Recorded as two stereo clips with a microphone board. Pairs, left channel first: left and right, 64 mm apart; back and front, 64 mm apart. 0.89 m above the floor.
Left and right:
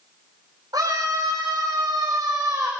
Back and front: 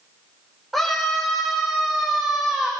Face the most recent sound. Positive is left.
turn(degrees=-60)